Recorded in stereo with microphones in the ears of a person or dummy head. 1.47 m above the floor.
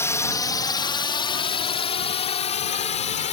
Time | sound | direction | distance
0.0 | a drone | 15° left (ahead or behind) | ?